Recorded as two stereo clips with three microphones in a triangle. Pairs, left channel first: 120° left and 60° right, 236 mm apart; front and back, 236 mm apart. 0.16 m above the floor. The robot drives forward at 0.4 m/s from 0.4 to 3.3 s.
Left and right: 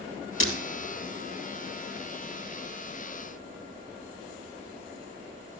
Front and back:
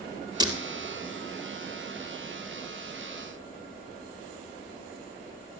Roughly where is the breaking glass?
Left.